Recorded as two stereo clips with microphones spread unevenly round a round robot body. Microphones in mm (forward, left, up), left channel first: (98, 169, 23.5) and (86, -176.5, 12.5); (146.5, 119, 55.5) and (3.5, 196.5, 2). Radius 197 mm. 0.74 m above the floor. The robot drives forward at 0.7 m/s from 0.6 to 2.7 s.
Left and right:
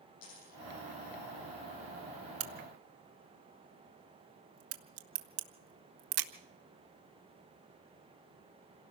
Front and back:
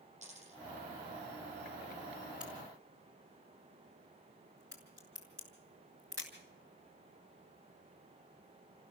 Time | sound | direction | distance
0.2 | a dropped coin | 105° left | 10 m
2.4 | a crack | 120° right | 1.3 m